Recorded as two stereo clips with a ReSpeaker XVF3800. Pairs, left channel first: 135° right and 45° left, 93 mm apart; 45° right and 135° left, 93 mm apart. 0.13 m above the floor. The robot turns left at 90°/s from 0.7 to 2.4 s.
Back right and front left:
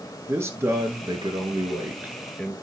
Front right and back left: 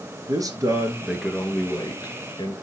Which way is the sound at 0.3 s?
100° left.